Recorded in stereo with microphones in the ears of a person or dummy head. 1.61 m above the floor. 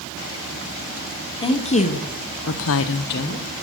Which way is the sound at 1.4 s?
25° left (ahead or behind).